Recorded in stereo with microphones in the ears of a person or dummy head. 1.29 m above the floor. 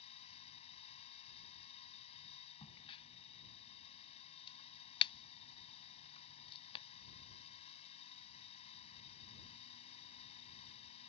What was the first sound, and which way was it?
A drone, 35° left (ahead or behind).